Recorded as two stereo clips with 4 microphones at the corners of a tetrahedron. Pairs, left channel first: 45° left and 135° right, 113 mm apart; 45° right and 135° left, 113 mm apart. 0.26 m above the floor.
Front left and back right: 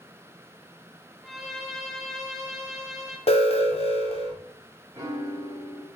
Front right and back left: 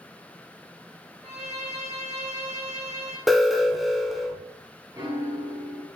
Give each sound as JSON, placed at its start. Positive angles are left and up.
{"t": 1.2, "sound": "a violin", "azimuth_deg": 135, "distance_m": 2.0}
{"t": 3.3, "sound": "an alarm", "azimuth_deg": 45, "distance_m": 1.2}
{"t": 4.9, "sound": "a piano", "azimuth_deg": 170, "distance_m": 3.0}